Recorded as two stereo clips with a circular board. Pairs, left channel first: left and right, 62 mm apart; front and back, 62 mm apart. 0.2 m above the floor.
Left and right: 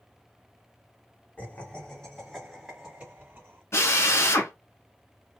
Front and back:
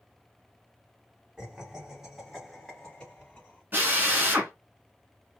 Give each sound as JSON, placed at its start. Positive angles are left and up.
{"t": 1.4, "sound": "laughter", "azimuth_deg": 115, "distance_m": 1.8}
{"t": 3.7, "sound": "a drill", "azimuth_deg": 130, "distance_m": 1.4}